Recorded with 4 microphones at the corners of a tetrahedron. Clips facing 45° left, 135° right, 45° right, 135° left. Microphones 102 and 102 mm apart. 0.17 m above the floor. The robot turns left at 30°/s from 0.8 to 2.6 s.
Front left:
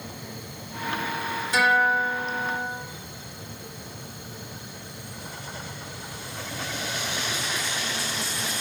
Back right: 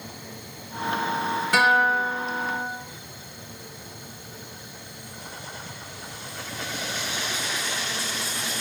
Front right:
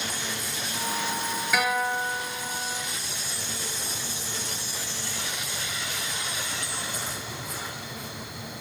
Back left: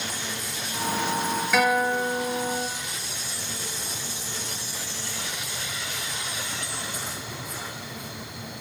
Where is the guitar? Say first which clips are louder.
Back right 1 dB, back left 4 dB; 135° right, 1.4 m; by 2.7 s 165° right, 1.4 m.